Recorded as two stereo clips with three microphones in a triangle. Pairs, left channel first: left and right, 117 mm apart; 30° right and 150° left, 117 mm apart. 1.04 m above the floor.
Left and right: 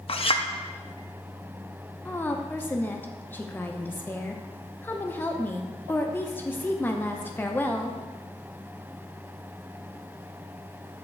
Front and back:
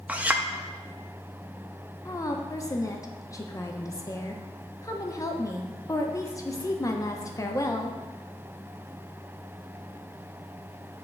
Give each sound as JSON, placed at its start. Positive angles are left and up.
{"t": 0.1, "sound": "a clink", "azimuth_deg": 75, "distance_m": 0.5}
{"t": 2.0, "sound": "a woman speaking", "azimuth_deg": 20, "distance_m": 0.6}